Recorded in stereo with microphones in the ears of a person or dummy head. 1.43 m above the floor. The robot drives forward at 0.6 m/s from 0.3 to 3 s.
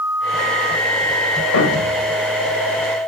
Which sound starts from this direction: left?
A thud, at 1.5 s.